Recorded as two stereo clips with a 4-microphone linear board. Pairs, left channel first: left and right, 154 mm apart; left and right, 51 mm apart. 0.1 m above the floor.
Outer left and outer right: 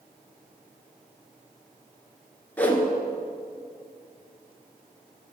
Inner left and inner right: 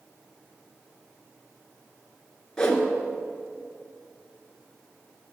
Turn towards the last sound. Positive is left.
turn(degrees=10)  # may be behind; listen again after turning